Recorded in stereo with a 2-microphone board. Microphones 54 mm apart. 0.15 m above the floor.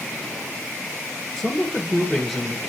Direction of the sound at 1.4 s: 5° left (ahead or behind).